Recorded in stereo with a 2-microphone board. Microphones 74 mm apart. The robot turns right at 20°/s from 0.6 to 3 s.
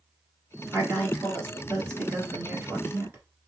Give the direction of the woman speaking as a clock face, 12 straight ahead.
4 o'clock.